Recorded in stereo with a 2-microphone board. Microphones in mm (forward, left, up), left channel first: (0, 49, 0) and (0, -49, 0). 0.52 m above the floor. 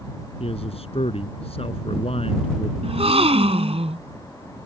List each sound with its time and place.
0.4 s a man speaking: 80° left
2.8 s a gasp: 85° right